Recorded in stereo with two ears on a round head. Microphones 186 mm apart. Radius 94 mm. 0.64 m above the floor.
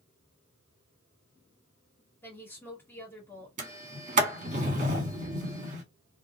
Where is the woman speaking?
10° left (ahead or behind), 1.6 m.